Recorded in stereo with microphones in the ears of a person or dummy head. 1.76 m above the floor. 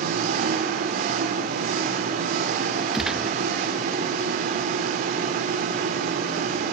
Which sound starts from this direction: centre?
A gunshot, at 2.9 s.